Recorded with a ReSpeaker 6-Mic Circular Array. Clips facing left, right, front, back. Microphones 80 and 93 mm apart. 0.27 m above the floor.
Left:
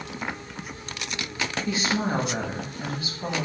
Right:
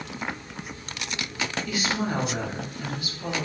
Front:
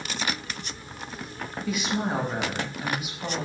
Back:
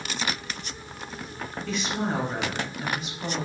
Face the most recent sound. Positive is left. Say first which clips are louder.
# left 3 dB, front 1 dB
turn(degrees=75)